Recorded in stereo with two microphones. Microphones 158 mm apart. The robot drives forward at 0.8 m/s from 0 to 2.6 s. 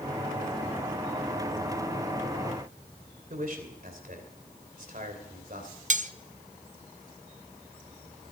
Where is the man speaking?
65° right (ahead or behind), 3 m.